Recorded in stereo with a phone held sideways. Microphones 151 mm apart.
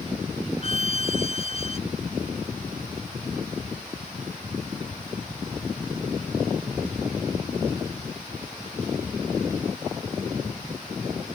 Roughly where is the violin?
Left.